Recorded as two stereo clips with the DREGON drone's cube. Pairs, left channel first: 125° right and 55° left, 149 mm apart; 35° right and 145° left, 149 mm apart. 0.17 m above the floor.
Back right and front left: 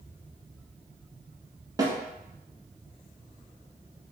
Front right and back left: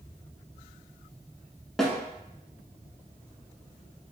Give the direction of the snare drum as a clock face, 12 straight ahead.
10 o'clock.